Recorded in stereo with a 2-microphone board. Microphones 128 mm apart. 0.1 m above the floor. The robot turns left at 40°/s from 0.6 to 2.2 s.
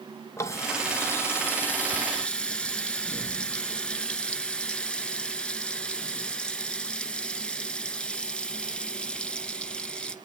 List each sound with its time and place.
0.4 s a running tap: 20° left (ahead or behind), 0.9 m; by 10.2 s 10° left (ahead or behind), 0.9 m